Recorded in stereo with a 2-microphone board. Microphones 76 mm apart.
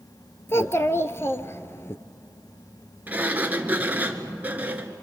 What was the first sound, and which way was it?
A child speaking, 35° left (ahead or behind).